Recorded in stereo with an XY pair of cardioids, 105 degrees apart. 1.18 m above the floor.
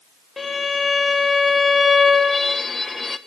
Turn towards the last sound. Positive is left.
turn(degrees=20)